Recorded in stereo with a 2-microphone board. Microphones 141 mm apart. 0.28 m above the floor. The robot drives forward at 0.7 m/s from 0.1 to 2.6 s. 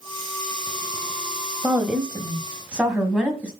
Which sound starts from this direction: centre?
A woman speaking, at 1.6 s.